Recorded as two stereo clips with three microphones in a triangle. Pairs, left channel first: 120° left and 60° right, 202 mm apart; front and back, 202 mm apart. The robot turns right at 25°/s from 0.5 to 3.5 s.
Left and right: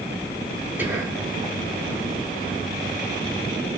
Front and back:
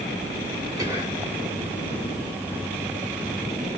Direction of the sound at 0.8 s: 130° right.